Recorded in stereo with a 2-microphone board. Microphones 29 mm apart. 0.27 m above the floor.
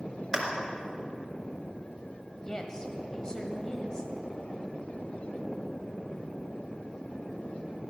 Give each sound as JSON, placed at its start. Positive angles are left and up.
{"t": 0.3, "sound": "a clap", "side_deg": -15, "distance_m": 3.5}
{"t": 2.4, "sound": "a woman speaking", "side_deg": 25, "distance_m": 1.6}